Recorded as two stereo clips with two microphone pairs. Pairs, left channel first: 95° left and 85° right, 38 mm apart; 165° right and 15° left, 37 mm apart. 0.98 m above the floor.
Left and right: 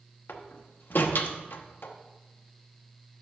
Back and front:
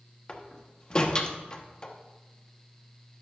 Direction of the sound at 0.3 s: 130° left.